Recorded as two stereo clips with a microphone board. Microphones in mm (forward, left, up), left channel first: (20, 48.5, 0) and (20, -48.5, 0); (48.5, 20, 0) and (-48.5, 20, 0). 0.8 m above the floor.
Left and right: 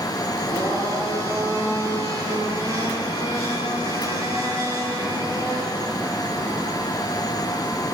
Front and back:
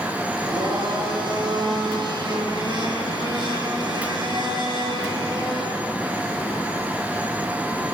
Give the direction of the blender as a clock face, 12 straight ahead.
5 o'clock.